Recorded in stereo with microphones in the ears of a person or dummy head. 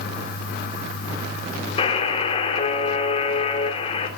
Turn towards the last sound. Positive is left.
turn(degrees=35)  # may be behind; listen again after turning